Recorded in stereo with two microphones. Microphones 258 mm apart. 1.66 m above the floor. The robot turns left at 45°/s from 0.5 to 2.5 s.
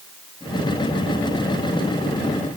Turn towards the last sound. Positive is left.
No sound to turn to.